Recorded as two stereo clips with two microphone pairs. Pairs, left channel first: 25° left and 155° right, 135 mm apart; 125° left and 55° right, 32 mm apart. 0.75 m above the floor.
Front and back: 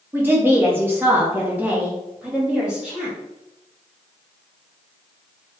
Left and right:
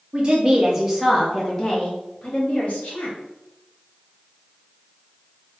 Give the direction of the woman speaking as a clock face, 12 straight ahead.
3 o'clock.